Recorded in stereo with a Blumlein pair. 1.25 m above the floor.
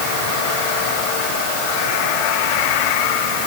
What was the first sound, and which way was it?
Only background noise.